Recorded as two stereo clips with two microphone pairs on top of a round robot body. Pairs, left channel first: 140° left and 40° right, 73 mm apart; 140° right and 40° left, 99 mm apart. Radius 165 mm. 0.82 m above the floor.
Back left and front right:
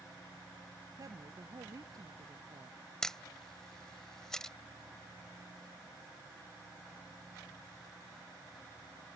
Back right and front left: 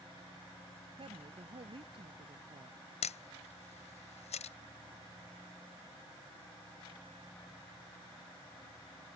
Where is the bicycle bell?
No bicycle bell in this recording.